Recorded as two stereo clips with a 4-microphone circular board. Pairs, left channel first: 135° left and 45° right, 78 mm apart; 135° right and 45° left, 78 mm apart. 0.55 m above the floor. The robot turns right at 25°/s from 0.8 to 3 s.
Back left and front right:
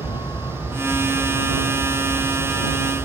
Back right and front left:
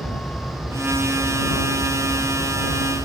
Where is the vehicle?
145° left; by 3.1 s 140° right.